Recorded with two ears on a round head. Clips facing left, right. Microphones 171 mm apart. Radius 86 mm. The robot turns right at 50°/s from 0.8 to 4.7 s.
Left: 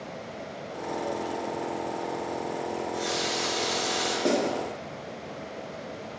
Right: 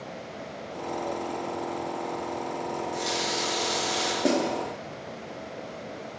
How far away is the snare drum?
About 0.7 m.